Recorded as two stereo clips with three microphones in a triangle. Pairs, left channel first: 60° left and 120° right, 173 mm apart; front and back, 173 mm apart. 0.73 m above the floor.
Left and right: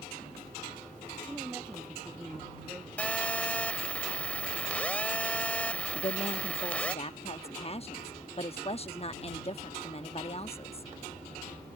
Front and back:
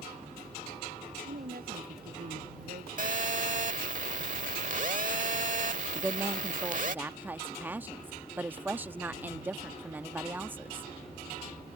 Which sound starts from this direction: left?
A woman speaking, at 6.0 s.